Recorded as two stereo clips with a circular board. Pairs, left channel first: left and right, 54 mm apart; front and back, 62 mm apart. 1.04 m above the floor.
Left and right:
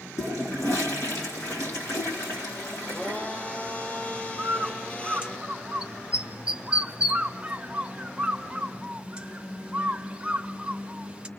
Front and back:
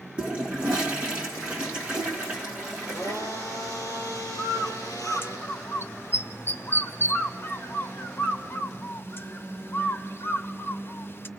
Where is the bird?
25° right, 0.8 m.